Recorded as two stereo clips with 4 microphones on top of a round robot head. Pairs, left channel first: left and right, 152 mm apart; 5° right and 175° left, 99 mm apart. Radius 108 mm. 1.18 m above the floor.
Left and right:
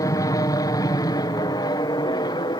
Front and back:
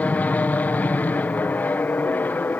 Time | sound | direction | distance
0.0 | an aircraft | 50° left | ?